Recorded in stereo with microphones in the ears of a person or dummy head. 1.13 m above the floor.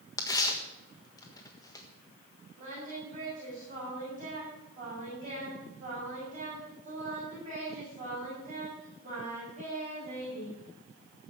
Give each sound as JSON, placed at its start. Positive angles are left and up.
{"t": 0.2, "sound": "tearing paper", "side_deg": 15, "distance_m": 1.4}
{"t": 2.6, "sound": "singing", "side_deg": -40, "distance_m": 7.0}